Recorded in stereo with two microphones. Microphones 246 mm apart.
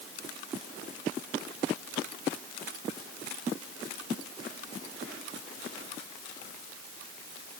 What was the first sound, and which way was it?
Only background noise.